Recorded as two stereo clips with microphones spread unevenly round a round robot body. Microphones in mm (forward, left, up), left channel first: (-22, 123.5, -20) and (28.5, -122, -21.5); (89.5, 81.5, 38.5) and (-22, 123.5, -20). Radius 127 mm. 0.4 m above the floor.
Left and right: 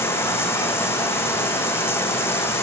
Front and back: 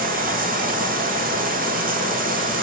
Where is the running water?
175° right, 2 m.